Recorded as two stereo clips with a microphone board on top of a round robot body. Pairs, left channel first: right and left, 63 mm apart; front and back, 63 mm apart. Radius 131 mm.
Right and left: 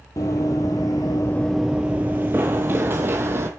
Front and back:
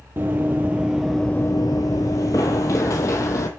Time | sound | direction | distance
0.2 | running footsteps | 125° right | 0.9 m